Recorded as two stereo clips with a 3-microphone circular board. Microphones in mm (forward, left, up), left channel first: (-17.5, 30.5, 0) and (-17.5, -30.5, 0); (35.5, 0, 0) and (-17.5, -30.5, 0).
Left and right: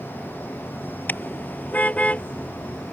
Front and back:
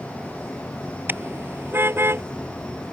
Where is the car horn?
155° left; by 2.2 s 160° left.